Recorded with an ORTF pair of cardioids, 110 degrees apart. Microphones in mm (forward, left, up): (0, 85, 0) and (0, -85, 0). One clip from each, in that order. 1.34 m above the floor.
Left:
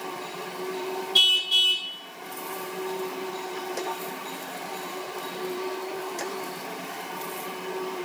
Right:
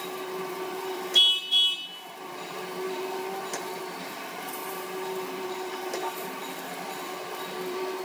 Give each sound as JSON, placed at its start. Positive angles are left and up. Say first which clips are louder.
{"t": 1.1, "sound": "a car horn", "louder": "left 1 dB", "azimuth_deg": 25, "distance_m": 2.5}